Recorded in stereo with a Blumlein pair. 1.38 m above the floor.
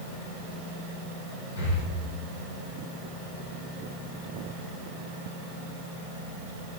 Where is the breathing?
70° left, 2.5 m.